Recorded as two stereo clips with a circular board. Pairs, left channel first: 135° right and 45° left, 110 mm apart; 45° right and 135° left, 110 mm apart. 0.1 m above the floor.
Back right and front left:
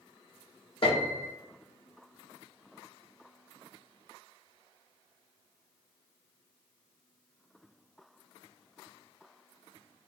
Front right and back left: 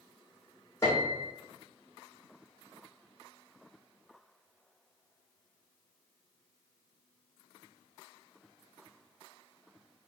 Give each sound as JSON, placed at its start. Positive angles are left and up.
{"t": 0.8, "sound": "a piano", "azimuth_deg": -105, "distance_m": 1.1}